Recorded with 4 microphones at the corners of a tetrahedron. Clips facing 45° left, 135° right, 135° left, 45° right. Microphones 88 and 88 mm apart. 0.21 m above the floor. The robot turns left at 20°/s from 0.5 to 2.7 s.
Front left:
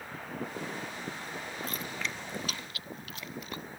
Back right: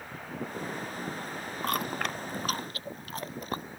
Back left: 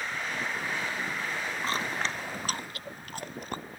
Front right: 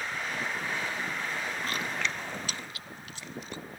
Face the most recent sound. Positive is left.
turn(degrees=175)